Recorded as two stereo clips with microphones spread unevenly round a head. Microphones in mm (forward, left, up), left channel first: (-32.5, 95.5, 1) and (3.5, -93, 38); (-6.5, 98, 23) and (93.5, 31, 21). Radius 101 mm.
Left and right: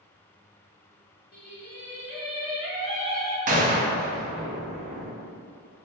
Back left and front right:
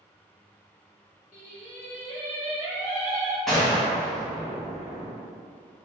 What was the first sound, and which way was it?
Singing, 120° left.